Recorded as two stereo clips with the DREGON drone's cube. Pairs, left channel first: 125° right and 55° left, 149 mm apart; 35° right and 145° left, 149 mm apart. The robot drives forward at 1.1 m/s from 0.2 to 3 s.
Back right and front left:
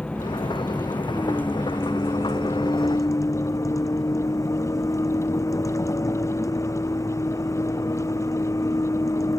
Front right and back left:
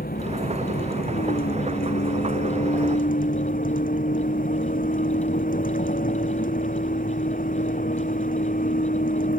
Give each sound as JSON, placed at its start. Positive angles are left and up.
{"t": 0.0, "sound": "a vehicle", "azimuth_deg": -40}